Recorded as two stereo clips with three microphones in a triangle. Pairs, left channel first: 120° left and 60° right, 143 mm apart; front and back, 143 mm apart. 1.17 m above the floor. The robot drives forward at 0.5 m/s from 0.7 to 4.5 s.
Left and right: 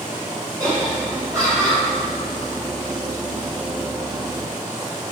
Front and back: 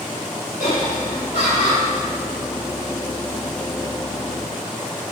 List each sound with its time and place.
0.6 s laughter: 5° left, 5 m